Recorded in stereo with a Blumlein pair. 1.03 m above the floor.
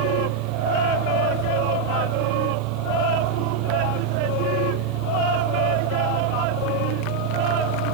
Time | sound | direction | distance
0.0 | a fan | 40° right | ?